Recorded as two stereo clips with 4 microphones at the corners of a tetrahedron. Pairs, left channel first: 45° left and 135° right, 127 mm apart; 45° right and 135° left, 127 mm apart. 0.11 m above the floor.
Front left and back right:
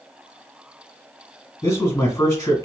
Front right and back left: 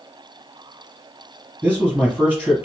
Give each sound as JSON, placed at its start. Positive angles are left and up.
{"t": 1.6, "sound": "a man speaking", "azimuth_deg": 80, "distance_m": 1.9}